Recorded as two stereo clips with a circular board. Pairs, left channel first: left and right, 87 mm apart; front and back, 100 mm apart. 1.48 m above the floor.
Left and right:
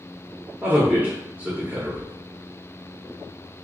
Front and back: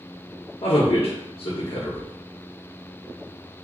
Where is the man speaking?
20° right, 0.7 m.